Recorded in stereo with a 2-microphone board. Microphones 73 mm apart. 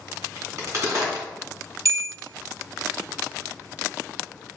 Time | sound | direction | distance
0.4 | a crack | 45° right (ahead or behind) | 2.5 m
1.9 | a bell | 50° right (ahead or behind) | 1.0 m